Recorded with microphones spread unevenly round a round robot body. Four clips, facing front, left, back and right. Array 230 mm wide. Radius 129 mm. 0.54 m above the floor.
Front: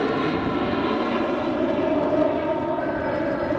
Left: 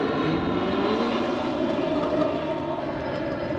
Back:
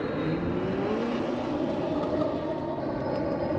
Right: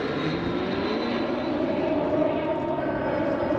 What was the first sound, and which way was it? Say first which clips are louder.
An aircraft: left 3 dB, front 6 dB; 20° left.